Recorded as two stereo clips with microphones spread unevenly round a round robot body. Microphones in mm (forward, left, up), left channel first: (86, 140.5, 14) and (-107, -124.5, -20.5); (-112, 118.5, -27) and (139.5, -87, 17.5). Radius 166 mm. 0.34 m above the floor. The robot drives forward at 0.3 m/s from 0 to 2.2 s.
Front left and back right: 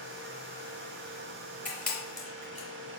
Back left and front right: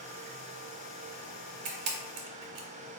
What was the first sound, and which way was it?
A camera shutter, 35° right.